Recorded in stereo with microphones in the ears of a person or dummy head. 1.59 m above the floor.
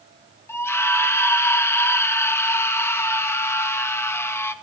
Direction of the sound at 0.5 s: 10° left (ahead or behind).